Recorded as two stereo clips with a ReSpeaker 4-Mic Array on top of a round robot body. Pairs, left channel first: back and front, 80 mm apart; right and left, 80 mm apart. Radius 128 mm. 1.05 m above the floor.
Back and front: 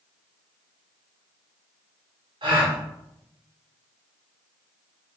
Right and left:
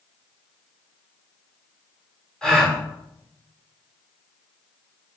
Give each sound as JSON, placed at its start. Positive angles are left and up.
{"t": 2.4, "sound": "a gasp", "azimuth_deg": -10, "distance_m": 3.5}